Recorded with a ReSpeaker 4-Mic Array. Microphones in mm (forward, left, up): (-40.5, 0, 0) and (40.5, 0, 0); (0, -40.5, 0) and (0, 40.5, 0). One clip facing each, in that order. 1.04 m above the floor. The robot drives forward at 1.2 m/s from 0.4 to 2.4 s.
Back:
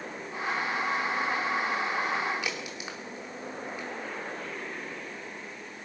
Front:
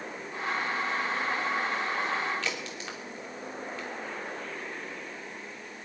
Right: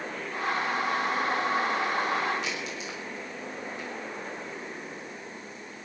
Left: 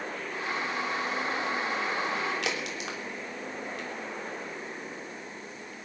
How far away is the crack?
About 3 m.